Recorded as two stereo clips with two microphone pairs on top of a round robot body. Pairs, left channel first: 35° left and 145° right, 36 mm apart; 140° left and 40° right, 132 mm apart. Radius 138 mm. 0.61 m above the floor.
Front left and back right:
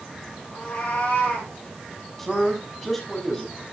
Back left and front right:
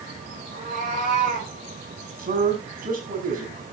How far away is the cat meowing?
About 10 m.